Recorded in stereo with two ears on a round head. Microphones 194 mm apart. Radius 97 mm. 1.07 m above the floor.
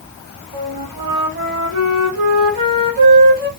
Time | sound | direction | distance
0.5 | a flute | 45° right (ahead or behind) | 1.7 m